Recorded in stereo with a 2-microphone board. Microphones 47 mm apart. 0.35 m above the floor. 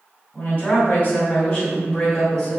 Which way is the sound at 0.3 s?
35° left (ahead or behind).